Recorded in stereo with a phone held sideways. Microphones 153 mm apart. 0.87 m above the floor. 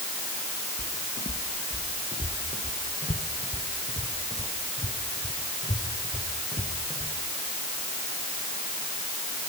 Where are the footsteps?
70° left (ahead or behind), 3.5 m; by 7.1 s 35° left (ahead or behind), 6.5 m.